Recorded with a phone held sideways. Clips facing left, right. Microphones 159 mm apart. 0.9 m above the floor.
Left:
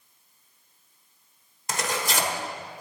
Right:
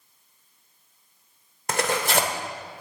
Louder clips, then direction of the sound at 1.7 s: Right 5 dB; 60° right (ahead or behind).